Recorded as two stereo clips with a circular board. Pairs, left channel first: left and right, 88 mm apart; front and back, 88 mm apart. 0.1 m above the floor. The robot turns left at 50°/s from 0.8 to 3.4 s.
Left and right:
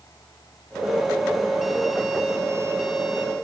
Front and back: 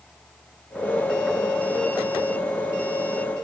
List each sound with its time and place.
Only background noise.